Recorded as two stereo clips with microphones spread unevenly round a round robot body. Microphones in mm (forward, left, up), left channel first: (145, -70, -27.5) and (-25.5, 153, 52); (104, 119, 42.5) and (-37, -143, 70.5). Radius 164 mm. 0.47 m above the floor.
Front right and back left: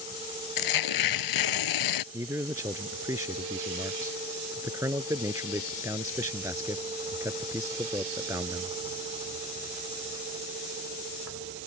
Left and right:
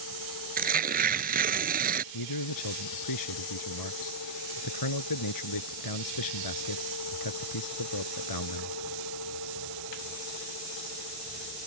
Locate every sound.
0.6 s tearing paper: 55° right
2.1 s a man speaking: 50° left